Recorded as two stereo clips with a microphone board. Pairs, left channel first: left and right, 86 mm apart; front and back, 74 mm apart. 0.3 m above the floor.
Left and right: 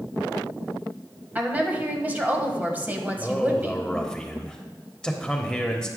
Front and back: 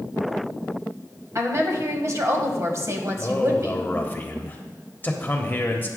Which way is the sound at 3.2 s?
20° left.